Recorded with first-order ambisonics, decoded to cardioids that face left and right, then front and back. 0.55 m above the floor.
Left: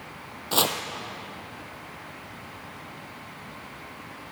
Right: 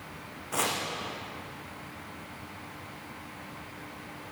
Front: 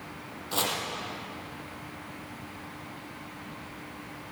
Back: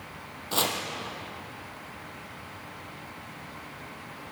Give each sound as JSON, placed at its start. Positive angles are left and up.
{"t": 0.5, "sound": "chopping", "azimuth_deg": 100, "distance_m": 3.0}